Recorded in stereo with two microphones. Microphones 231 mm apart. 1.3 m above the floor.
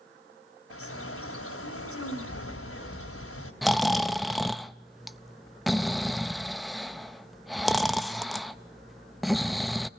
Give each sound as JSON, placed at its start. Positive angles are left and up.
{"t": 0.7, "sound": "a bird", "side_deg": 75, "distance_m": 3.0}
{"t": 3.6, "sound": "snoring", "side_deg": 0, "distance_m": 0.5}